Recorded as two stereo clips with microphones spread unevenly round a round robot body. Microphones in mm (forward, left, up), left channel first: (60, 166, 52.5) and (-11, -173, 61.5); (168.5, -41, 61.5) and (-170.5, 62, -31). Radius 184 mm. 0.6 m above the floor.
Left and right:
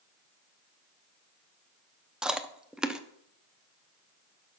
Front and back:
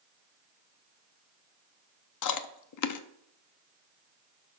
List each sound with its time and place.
2.2 s chewing: 15° right, 0.7 m